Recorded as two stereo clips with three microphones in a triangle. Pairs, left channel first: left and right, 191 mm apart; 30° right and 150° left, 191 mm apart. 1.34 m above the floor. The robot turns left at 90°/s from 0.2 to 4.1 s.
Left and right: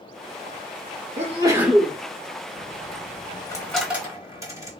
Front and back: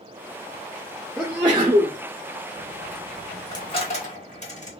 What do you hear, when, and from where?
1.2 s a sneeze: 120° right, 0.6 m; by 2.0 s 165° left, 0.6 m
2.6 s a dropped coin: 115° left, 0.9 m; by 4.7 s 25° right, 0.9 m